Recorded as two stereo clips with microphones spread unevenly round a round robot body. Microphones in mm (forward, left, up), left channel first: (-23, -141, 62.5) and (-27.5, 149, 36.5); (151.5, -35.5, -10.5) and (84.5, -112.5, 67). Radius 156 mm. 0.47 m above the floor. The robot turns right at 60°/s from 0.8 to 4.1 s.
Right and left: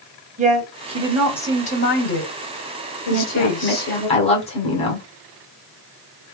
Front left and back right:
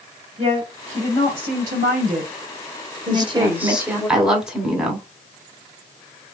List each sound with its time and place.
0.4 s a woman speaking: 155° left, 1.9 m; by 4.1 s 10° right, 1.9 m
3.1 s a woman speaking: 80° right, 2 m; by 5.1 s 20° right, 2 m